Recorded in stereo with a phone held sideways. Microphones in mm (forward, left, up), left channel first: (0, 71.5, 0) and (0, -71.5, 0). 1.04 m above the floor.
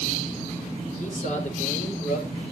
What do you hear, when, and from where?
1.0 s a man speaking: 60° left (ahead or behind), 4.5 m; by 2.3 s 65° left (ahead or behind), 5 m